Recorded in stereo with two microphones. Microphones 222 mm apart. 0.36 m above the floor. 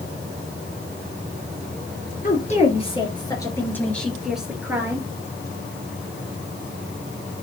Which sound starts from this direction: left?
A woman speaking, at 2.2 s.